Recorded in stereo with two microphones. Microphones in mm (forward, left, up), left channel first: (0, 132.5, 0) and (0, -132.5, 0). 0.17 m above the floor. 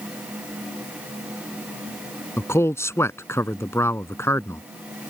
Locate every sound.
2.4 s a man speaking: 10° left (ahead or behind)